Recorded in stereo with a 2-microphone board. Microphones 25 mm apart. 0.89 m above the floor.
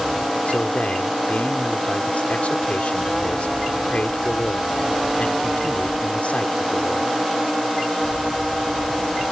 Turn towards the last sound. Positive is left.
turn(degrees=70)  # may be behind; listen again after turning